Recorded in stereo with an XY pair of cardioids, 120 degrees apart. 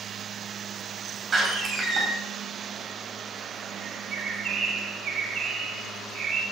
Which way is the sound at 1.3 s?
25° right.